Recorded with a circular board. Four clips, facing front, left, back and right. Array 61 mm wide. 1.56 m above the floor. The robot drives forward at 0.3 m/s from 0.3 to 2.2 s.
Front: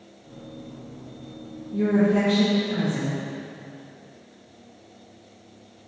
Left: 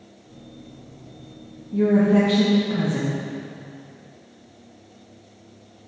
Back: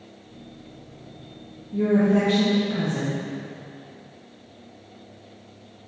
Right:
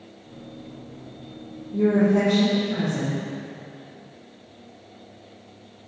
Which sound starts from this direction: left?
A woman speaking, at 1.7 s.